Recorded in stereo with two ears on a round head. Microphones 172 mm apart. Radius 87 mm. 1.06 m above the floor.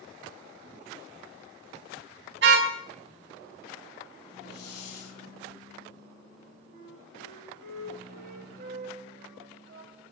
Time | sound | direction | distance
2.4 | a car horn | 60° right (ahead or behind) | 5 m
4.5 | a hiss | 55° left (ahead or behind) | 4 m
6.7 | a flute | 45° right (ahead or behind) | 8 m